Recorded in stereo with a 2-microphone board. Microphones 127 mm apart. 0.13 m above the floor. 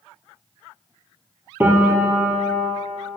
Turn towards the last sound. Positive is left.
turn(degrees=-15)  # may be behind; listen again after turning